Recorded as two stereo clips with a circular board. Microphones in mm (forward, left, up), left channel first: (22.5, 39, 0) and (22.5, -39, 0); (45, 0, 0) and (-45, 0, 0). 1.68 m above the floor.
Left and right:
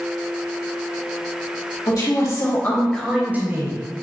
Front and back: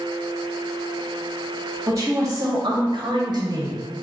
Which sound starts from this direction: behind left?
A woman speaking, at 1.9 s.